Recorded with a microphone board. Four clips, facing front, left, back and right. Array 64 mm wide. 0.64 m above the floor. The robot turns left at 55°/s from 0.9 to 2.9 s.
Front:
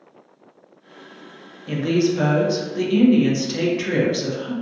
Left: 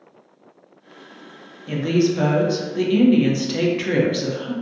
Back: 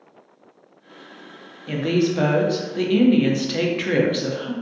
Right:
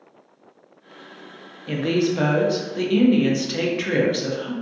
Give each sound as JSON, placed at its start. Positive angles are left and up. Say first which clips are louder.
{"t": 1.7, "sound": "a woman speaking", "louder": "left 2 dB, front 1 dB", "azimuth_deg": -115, "distance_m": 0.5}